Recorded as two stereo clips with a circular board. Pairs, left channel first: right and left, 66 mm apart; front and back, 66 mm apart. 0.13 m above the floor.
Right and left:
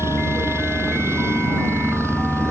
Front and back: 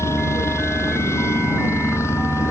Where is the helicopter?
45° left.